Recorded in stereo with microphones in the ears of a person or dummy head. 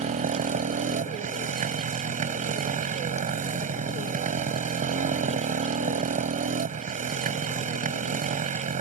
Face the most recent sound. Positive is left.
turn(degrees=-35)  # may be behind; listen again after turning